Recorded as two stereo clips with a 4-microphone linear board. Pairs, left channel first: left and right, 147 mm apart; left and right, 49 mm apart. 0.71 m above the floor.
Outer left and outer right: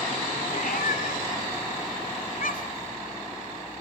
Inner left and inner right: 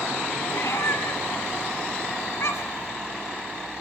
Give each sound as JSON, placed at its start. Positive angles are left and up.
{"t": 0.5, "sound": "a cat meowing", "side_deg": 65, "distance_m": 1.5}